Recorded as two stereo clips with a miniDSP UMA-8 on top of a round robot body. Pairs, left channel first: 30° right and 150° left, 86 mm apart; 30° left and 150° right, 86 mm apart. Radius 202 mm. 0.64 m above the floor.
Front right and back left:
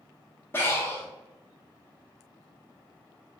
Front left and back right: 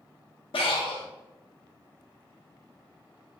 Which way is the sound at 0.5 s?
35° left.